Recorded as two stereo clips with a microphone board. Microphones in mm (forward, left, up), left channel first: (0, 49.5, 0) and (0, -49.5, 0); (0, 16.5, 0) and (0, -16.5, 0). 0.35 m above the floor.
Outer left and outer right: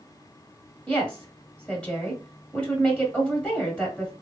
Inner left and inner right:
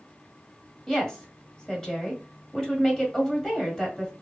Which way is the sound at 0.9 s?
10° left (ahead or behind).